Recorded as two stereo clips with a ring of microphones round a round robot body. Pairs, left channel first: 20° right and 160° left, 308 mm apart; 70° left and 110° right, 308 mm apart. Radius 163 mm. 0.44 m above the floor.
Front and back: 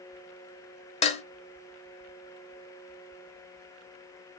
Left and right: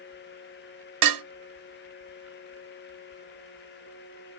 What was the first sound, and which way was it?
Dishes clattering, 90° right.